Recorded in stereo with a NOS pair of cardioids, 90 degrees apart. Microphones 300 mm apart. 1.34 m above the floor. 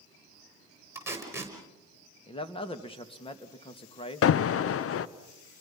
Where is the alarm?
50° left, 0.7 m.